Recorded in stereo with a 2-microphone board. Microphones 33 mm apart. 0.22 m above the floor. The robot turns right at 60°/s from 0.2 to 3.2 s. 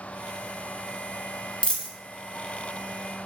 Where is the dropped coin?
25° left (ahead or behind), 0.5 m; by 1.9 s 20° left (ahead or behind), 0.5 m.